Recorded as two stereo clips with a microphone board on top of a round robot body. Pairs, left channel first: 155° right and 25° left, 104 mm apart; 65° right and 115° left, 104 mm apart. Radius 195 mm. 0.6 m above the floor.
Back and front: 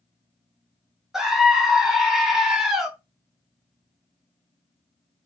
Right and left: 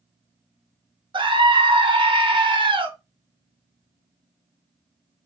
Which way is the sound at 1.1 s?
105° left.